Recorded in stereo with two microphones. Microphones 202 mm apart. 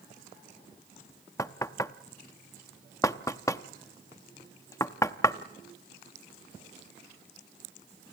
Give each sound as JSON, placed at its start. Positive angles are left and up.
{"t": 1.4, "sound": "knocking", "side_deg": 15, "distance_m": 0.6}